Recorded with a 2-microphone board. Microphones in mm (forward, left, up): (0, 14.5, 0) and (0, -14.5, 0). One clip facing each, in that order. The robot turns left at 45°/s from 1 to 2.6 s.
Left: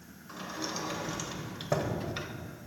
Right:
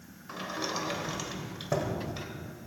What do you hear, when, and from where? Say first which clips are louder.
0.3 s a sliding door: right 3 dB; 155° right, 1.3 m; by 2.3 s 150° left, 1.3 m